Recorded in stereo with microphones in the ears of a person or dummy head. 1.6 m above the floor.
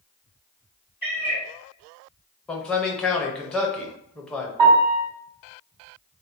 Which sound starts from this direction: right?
A piano, at 4.6 s.